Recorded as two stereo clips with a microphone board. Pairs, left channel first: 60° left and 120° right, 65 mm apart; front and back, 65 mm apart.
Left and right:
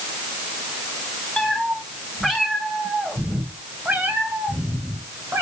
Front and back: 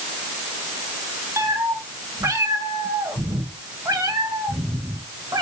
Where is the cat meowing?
145° left, 3 m; by 5.4 s 165° right, 2.5 m.